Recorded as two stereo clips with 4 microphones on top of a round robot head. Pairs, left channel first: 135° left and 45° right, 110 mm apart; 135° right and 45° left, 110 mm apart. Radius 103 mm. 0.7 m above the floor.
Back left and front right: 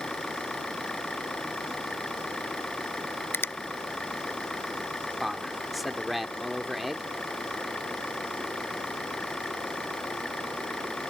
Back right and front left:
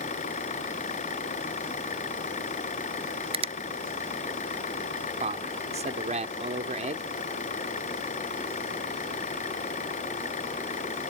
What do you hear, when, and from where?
0.0 s an engine running: 140° right
3.3 s a finger snap: 65° left
5.2 s a man speaking: 45° left